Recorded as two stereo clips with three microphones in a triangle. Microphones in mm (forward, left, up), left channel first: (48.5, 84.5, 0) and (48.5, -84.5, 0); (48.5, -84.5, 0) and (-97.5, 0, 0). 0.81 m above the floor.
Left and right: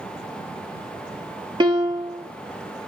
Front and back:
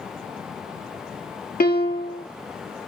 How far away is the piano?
About 1.1 m.